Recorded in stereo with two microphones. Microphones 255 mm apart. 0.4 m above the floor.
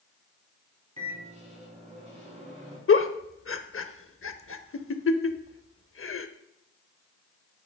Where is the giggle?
65° left (ahead or behind), 0.6 m.